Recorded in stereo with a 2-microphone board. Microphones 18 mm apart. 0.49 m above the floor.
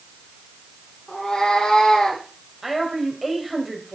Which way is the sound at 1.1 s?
80° left.